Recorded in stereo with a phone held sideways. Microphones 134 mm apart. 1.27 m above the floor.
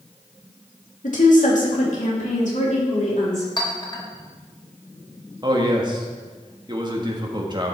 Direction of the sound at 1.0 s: 75° left (ahead or behind).